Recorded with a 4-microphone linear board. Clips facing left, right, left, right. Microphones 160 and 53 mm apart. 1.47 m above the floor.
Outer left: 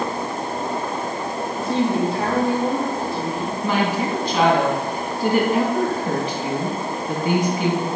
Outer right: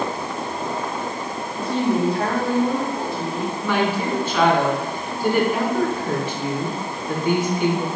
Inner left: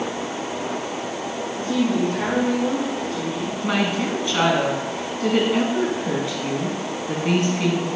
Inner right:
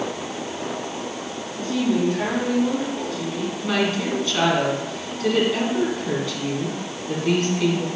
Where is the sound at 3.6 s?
35° left (ahead or behind), 2.0 m.